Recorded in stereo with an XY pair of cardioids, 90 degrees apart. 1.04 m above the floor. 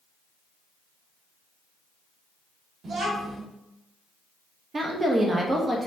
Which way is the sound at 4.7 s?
35° right.